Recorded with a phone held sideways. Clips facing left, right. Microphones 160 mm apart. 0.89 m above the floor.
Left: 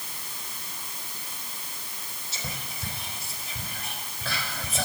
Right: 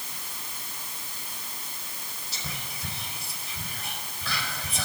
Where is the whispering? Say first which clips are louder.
Left 2 dB; 50° left (ahead or behind), 4 m.